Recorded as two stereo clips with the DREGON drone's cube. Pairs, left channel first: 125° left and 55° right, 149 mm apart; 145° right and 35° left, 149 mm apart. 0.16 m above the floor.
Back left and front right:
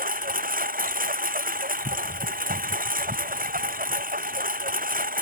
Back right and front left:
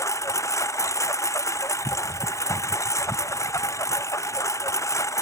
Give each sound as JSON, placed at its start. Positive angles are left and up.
{"t": 0.0, "sound": "a lawn mower", "azimuth_deg": -75}